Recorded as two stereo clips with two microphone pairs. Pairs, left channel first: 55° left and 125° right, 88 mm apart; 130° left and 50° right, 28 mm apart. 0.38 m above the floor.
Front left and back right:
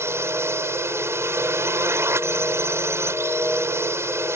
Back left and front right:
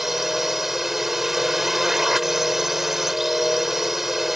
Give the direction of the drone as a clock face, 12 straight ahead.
4 o'clock.